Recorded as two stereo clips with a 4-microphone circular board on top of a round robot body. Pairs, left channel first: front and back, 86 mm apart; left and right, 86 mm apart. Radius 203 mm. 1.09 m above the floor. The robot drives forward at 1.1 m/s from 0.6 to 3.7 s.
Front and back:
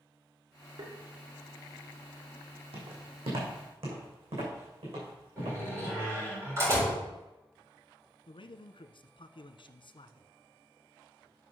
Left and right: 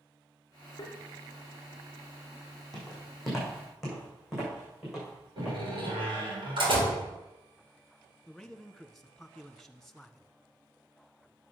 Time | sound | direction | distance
0.8 | tapping | 135° left | 1.2 m
2.7 | footsteps | 175° left | 4 m
5.4 | a door slam | 120° right | 4.5 m
8.3 | a man speaking | 5° left | 1.0 m